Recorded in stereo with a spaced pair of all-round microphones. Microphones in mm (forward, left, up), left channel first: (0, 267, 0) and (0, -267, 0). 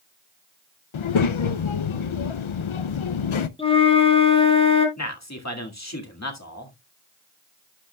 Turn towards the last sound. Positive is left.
turn(degrees=30)  # may be behind; listen again after turning